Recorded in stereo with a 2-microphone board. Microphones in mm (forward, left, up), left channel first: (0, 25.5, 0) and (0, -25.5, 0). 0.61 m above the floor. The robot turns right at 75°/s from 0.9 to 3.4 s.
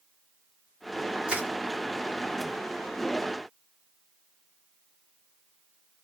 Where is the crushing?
20° right (ahead or behind), 1.5 m; by 1.5 s 30° right (ahead or behind), 1.5 m.